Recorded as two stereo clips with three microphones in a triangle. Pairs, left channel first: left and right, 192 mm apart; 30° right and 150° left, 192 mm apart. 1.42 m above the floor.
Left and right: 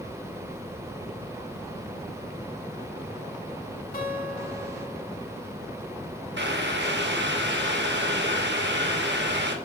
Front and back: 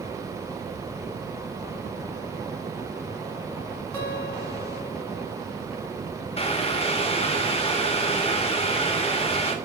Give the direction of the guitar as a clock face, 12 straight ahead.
10 o'clock.